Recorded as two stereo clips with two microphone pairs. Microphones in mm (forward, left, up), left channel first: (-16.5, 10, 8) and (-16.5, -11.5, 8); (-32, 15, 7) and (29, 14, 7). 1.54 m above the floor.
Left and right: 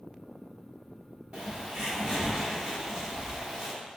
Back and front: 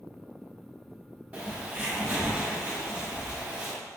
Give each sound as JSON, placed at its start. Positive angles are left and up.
{"t": 1.3, "sound": "a bird", "azimuth_deg": -60, "distance_m": 1.6}